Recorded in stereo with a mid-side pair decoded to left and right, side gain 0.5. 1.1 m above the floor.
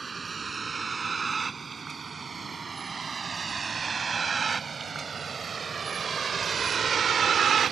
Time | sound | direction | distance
0.0 | a vehicle | 30° right | ?